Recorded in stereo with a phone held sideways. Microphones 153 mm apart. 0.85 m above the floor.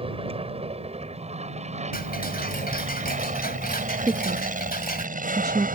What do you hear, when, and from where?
0.0 s an aircraft: 40° right (ahead or behind); by 5.8 s 65° right (ahead or behind)
1.9 s ticking: 80° left
4.1 s a woman speaking: 25° right (ahead or behind)